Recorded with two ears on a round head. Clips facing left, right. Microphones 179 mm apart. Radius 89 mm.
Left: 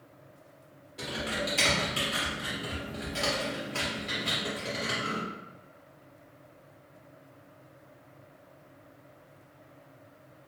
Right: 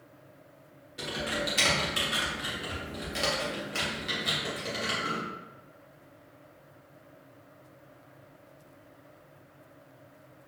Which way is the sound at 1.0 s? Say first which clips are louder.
Right 1 dB; 15° right (ahead or behind).